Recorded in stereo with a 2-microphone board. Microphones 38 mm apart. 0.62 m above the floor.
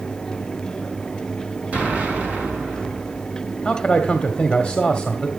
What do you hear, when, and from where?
1.7 s an explosion: 40° right (ahead or behind), 4.5 m
3.6 s a man speaking: 20° left (ahead or behind), 1.5 m